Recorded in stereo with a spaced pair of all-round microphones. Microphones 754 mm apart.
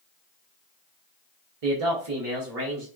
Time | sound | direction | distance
1.6 | a man speaking | 55° right (ahead or behind) | 0.6 m